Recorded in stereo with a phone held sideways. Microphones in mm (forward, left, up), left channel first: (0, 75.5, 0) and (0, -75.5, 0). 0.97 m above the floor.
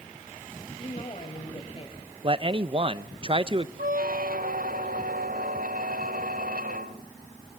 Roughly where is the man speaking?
Right.